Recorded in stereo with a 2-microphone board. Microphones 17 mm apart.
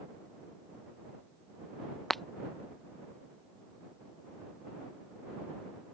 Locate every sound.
2.1 s breaking glass: 10° left (ahead or behind)